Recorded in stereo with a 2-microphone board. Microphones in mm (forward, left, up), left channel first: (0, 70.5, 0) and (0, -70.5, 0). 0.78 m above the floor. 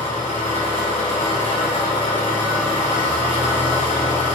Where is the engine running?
60° left (ahead or behind), 2.5 m.